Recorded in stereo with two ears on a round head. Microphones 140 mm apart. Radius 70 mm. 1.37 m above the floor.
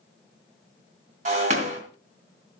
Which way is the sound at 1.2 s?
45° right (ahead or behind).